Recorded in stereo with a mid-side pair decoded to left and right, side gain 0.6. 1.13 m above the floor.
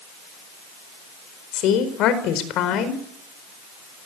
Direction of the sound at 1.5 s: 65° left.